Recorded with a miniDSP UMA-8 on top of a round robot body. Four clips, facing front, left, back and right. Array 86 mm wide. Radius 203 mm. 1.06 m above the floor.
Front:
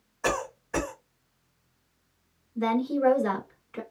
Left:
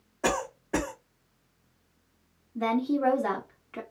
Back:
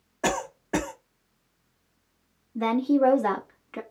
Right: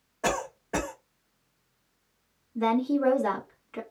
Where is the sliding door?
I don't hear a sliding door.